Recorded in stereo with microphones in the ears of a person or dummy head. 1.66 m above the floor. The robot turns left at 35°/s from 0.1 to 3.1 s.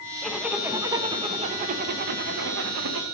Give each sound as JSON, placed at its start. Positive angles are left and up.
{"t": 0.2, "sound": "a zipper", "azimuth_deg": 5, "distance_m": 0.7}